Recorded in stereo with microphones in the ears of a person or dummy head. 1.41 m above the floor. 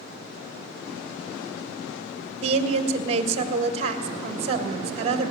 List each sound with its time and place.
2.4 s a woman speaking: 35° right (ahead or behind), 1.4 m